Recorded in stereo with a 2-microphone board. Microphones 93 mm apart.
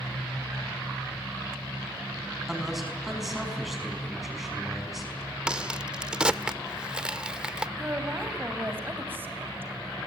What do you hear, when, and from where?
2.5 s a man speaking: 5° right (ahead or behind), 5 m
5.5 s a crack: 10° right (ahead or behind), 0.6 m
7.8 s a woman speaking: 25° right (ahead or behind), 2.5 m